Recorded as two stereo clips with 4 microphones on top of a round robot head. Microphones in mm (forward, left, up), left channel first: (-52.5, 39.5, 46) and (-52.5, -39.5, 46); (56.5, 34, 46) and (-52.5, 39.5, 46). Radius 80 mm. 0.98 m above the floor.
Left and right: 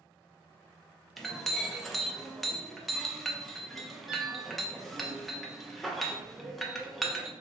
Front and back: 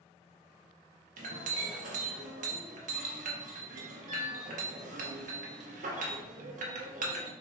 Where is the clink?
Straight behind, 0.6 m.